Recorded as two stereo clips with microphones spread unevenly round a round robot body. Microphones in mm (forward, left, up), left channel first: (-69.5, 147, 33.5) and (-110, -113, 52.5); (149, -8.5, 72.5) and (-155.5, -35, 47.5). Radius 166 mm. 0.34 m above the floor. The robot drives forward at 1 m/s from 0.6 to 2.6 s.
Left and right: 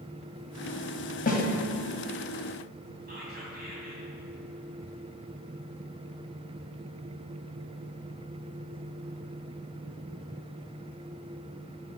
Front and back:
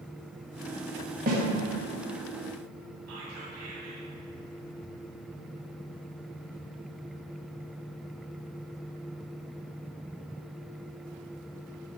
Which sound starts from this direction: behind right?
Whispering, at 3.1 s.